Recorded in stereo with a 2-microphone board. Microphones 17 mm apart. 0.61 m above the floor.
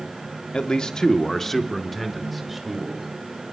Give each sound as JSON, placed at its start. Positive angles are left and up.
{"t": 0.5, "sound": "a man speaking", "side_deg": 55, "distance_m": 1.0}